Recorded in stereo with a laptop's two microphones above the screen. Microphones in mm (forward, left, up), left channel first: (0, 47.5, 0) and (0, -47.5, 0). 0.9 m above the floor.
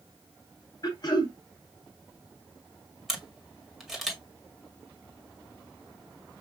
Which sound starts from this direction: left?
Throat clearing, at 0.8 s.